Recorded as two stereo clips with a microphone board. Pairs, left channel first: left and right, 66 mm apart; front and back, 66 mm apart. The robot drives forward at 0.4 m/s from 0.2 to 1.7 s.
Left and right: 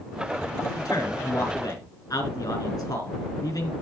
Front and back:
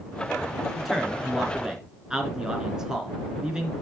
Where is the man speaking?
95° left, 3 m; by 3.7 s 100° left, 3 m.